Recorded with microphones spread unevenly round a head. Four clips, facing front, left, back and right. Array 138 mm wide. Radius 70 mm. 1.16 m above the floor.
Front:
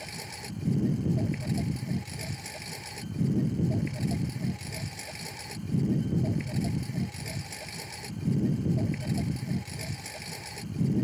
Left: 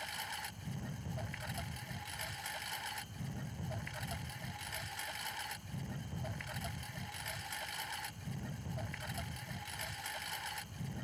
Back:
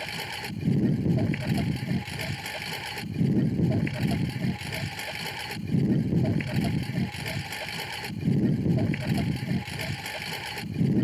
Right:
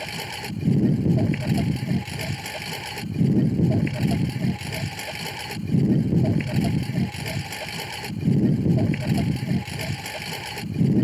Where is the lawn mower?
105° right.